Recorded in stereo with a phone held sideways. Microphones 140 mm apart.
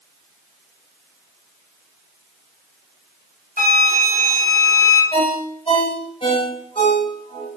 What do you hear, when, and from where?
3.6 s a flute: 85° left, 4 m
5.1 s a ringtone: 40° left (ahead or behind), 4.5 m